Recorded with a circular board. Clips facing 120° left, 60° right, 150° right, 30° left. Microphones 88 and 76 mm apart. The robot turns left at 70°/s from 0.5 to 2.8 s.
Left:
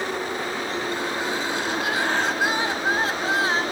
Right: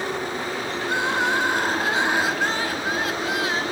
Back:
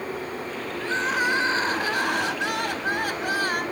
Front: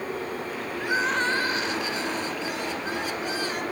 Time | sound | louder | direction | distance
0.8 | crying | right 8 dB, even | 45° right | 1.4 m